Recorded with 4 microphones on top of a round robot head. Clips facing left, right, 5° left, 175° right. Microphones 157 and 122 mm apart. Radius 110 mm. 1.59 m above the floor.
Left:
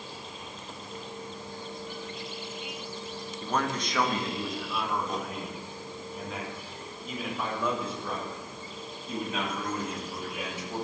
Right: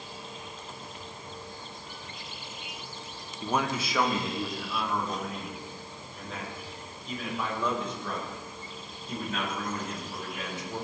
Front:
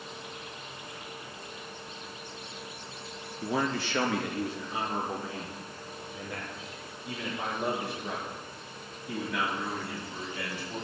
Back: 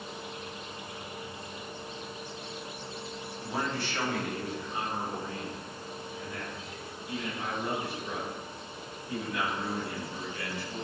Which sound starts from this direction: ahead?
A man speaking, at 3.4 s.